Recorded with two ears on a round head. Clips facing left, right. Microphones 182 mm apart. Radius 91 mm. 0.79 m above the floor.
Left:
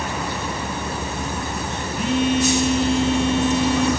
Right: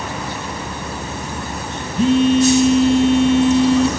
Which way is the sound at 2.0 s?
25° right (ahead or behind).